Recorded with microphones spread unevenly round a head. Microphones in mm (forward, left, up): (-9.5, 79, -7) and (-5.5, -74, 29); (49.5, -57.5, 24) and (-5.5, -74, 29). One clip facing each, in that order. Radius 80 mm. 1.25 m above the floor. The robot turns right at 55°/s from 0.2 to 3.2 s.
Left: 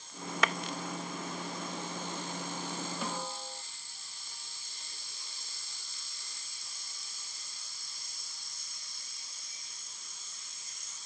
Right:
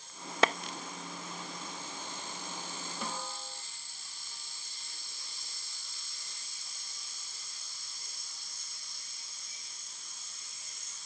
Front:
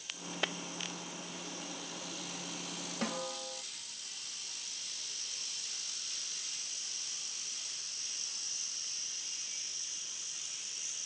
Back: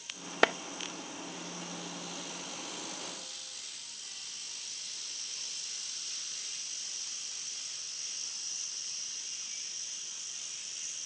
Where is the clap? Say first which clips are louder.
Right 5 dB, back 11 dB; 150° right; by 0.5 s 140° right.